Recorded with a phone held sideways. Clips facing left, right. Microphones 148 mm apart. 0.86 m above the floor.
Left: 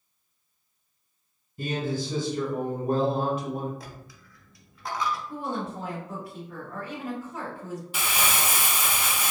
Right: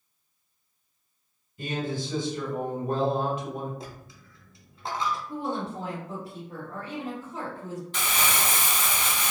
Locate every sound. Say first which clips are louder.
1.6 s a man speaking: left 2 dB; 45° left (ahead or behind), 1.3 m
3.8 s a dropped coin: right 2 dB; 25° right (ahead or behind), 0.6 m
5.3 s a woman speaking: right 1 dB; 35° right (ahead or behind), 1.8 m
7.9 s crumpling: left 1 dB; 10° left (ahead or behind), 0.6 m